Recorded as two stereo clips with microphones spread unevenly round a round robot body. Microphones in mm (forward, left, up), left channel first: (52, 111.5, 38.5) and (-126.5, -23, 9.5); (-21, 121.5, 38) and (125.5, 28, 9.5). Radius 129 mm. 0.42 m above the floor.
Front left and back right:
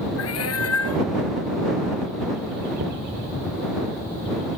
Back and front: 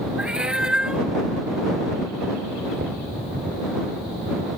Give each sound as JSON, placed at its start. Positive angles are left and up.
{"t": 0.2, "sound": "a cat meowing", "azimuth_deg": 55}
{"t": 2.8, "sound": "knocking", "azimuth_deg": -95}